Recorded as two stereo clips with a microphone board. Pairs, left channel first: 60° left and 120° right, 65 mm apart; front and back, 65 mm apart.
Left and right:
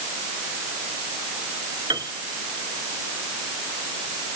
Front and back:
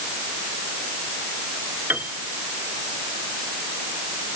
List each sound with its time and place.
1.9 s a piano: 120° right